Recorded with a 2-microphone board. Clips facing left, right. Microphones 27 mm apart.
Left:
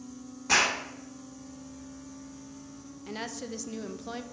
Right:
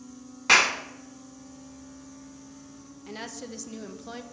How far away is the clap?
About 1.5 m.